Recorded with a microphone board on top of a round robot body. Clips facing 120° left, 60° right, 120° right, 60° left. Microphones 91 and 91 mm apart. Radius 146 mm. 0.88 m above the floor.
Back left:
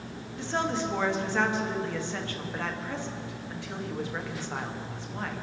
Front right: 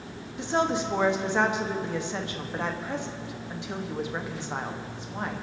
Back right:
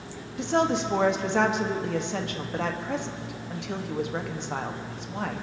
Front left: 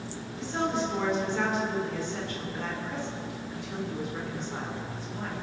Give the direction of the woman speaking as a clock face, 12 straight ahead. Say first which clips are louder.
Front right 4 dB, back right 5 dB; 4 o'clock.